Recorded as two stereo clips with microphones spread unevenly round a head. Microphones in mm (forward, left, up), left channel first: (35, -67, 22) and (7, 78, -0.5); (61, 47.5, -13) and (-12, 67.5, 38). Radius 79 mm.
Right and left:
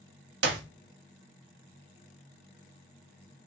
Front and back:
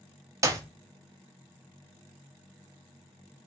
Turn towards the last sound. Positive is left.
turn(degrees=120)